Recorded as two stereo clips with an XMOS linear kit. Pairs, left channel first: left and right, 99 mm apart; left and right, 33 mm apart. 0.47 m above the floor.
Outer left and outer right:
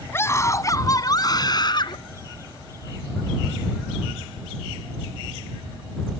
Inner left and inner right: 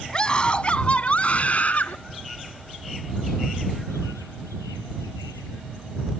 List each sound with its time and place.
0.1 s a scream: 25° left (ahead or behind); by 2.0 s 50° left (ahead or behind)